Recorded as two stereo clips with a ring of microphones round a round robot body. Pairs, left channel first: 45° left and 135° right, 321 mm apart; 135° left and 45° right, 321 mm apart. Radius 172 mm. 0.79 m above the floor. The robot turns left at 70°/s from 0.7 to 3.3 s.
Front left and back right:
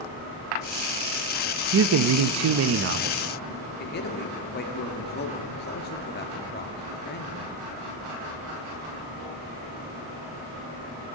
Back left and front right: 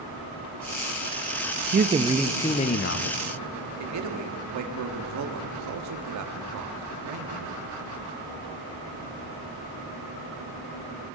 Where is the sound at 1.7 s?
100° right, 0.5 m; by 3.2 s 160° left, 0.5 m.